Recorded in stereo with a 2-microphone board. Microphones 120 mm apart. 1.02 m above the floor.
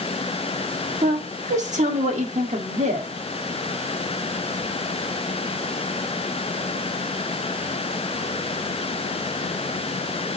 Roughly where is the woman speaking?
Right.